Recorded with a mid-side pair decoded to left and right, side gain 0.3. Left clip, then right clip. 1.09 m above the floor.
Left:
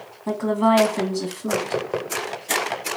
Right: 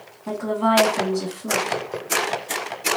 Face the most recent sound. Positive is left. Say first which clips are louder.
# left 2 dB
turn(degrees=55)